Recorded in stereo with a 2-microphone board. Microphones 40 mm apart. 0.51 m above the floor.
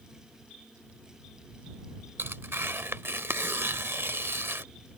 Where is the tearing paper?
80° right.